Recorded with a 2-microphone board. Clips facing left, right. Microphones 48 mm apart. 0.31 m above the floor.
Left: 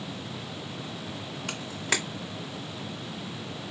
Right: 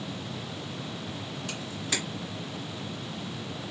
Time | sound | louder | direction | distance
1.5 | a camera shutter | left 5 dB | 65° left (ahead or behind) | 1.9 m